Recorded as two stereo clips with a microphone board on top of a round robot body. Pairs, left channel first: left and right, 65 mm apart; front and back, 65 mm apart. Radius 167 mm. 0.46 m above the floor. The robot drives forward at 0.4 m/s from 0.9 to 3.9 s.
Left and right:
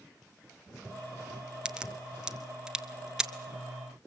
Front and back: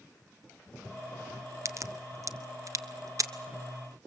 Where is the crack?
165° right, 1.6 m; by 3.3 s 170° right, 2 m.